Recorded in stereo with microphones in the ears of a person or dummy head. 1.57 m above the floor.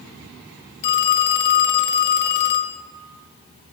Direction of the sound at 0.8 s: 60° left (ahead or behind).